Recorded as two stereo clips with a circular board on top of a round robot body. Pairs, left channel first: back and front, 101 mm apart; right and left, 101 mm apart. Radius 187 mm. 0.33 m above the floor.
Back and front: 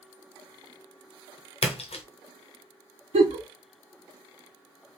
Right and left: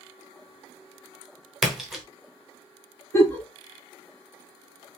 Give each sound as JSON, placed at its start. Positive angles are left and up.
{"t": 1.6, "sound": "a splash", "azimuth_deg": 180, "distance_m": 0.9}
{"t": 3.1, "sound": "a giggle", "azimuth_deg": -20, "distance_m": 0.8}